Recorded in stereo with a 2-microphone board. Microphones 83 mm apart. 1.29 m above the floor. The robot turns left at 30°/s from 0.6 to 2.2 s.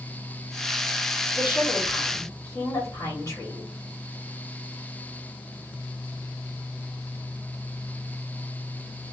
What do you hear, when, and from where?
1.3 s a woman speaking: 65° left (ahead or behind), 2.5 m; by 3.7 s 40° left (ahead or behind), 2.5 m